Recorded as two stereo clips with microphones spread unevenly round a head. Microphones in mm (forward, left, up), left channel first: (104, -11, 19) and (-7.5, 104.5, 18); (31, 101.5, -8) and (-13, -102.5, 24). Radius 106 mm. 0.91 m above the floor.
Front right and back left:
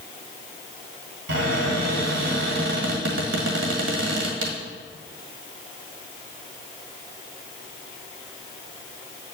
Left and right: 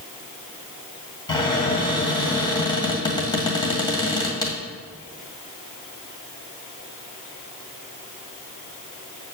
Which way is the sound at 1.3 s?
150° left.